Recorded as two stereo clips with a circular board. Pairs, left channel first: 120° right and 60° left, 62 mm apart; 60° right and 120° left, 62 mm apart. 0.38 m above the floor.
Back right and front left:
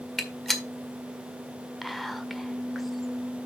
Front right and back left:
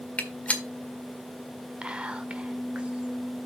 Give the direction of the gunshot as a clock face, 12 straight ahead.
1 o'clock.